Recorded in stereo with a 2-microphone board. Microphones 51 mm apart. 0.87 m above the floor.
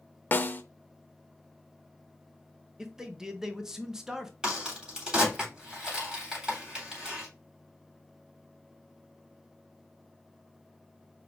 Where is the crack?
15° right (ahead or behind), 3.5 m.